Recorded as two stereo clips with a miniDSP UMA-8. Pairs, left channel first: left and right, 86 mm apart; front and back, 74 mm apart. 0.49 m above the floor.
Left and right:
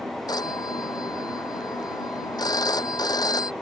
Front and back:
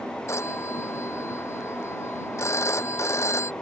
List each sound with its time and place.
0.3 s a phone ringing: 50° left